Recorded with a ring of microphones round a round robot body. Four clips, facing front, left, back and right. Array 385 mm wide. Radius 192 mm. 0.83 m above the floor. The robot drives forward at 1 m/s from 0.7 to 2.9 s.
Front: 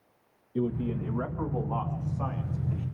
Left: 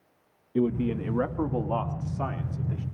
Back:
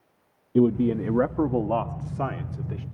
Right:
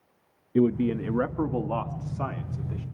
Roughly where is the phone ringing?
No phone ringing in this recording.